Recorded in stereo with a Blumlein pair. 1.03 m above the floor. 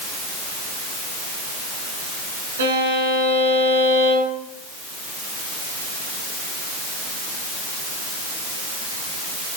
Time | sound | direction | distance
2.6 | a violin | 65° right | 1.9 m